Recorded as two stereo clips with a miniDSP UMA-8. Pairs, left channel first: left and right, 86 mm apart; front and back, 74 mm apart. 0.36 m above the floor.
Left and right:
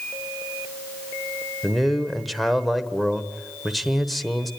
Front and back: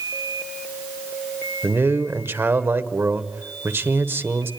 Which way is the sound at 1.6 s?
Straight behind.